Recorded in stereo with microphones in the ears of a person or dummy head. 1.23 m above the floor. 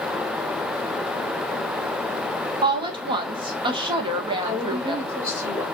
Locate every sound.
2.6 s a woman speaking: 25° right (ahead or behind), 0.9 m
4.4 s a woman speaking: 10° right (ahead or behind), 0.8 m